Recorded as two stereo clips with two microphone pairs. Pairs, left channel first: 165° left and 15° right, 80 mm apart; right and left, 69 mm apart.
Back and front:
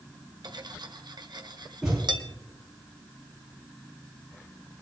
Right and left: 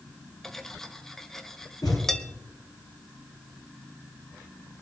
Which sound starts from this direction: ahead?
Cutlery clinking, at 0.4 s.